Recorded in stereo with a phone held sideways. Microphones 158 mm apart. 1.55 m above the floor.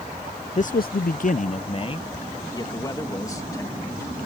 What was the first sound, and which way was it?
A man speaking, 45° left (ahead or behind).